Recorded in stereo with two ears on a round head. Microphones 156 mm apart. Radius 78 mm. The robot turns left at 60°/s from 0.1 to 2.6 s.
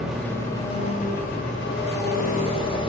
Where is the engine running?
175° right, 2 m; by 2.9 s 35° left, 2 m.